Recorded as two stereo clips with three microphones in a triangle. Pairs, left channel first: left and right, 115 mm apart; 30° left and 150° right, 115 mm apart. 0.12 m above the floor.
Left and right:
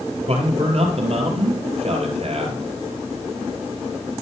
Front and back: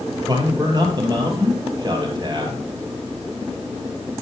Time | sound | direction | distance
0.3 | a man speaking | 100° right | 2.5 m